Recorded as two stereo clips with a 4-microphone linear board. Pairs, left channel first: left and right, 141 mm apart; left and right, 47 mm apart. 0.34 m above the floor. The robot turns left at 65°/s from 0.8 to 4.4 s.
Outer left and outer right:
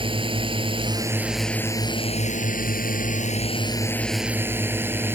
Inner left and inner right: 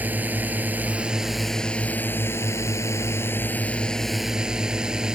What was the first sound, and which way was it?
A drone, 140° right.